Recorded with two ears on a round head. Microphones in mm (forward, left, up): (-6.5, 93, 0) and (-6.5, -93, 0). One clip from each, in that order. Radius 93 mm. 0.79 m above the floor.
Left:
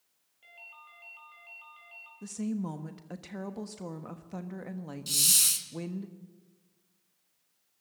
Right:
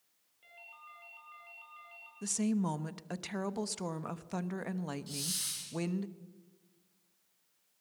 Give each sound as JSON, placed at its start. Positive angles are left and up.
{"t": 0.4, "sound": "a ringtone", "side_deg": 15, "distance_m": 6.5}
{"t": 2.2, "sound": "a woman speaking", "side_deg": -30, "distance_m": 1.1}
{"t": 5.1, "sound": "a hiss", "side_deg": 70, "distance_m": 2.5}